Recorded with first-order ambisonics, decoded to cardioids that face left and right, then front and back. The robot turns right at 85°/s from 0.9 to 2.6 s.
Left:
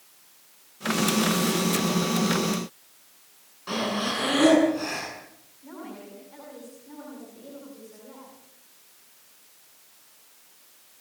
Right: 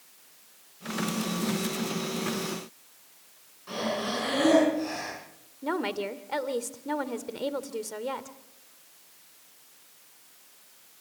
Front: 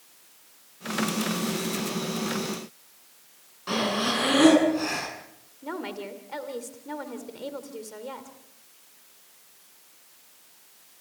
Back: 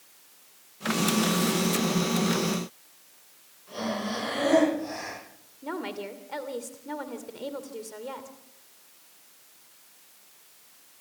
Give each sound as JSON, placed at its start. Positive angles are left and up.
{"t": 3.7, "sound": "breathing", "azimuth_deg": 30, "distance_m": 9.0}
{"t": 5.6, "sound": "a woman speaking", "azimuth_deg": -95, "distance_m": 2.5}